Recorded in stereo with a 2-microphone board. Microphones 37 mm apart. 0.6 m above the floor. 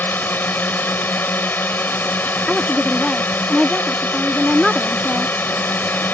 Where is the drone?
60° left (ahead or behind).